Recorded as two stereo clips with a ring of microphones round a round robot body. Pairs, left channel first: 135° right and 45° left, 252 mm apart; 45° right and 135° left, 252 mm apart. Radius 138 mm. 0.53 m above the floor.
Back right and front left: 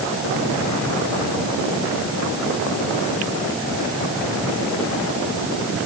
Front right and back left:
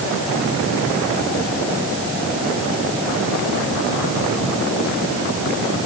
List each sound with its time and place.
Only background noise.